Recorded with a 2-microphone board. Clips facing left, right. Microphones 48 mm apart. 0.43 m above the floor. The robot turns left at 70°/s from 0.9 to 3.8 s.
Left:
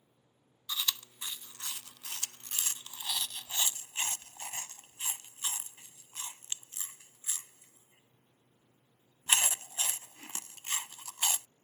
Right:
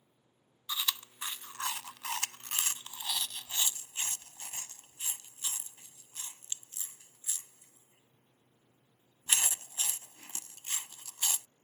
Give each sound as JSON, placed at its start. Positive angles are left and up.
{"t": 0.7, "sound": "chewing", "side_deg": -15}